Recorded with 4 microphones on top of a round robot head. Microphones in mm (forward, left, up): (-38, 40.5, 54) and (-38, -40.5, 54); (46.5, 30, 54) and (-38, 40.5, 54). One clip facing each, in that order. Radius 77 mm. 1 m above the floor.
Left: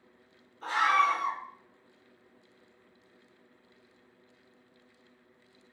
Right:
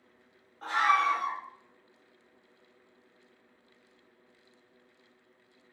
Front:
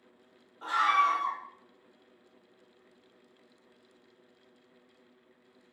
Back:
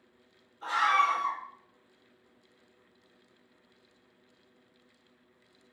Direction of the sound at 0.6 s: 45° right.